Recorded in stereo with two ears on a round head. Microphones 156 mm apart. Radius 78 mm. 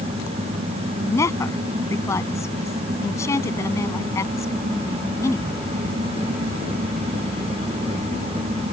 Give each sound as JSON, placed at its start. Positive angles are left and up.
{"t": 1.0, "sound": "a woman speaking", "side_deg": 15}